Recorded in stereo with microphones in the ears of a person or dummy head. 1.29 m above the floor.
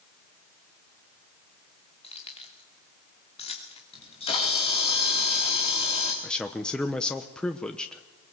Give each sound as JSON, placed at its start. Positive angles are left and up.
{"t": 2.0, "sound": "keys jangling", "side_deg": 25, "distance_m": 2.5}
{"t": 3.9, "sound": "a camera shutter", "side_deg": 25, "distance_m": 3.5}
{"t": 6.2, "sound": "a man speaking", "side_deg": 10, "distance_m": 0.9}